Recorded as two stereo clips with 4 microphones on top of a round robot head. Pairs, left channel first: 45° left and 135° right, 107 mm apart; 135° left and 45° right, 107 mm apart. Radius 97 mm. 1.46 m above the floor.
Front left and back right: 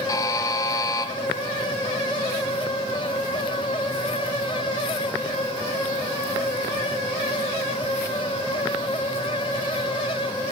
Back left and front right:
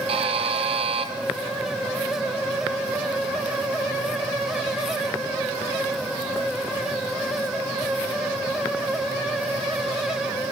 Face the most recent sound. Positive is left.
turn(degrees=-15)